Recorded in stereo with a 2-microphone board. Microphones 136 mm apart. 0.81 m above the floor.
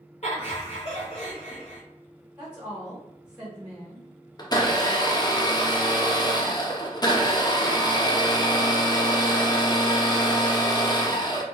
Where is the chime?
I don't hear a chime.